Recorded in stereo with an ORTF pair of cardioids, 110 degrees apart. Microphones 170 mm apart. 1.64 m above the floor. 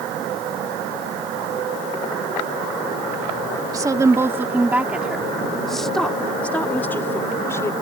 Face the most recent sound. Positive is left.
turn(degrees=15)